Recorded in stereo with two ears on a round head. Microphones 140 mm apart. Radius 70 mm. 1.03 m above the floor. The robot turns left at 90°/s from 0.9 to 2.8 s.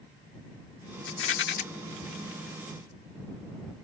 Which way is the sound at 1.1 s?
100° left.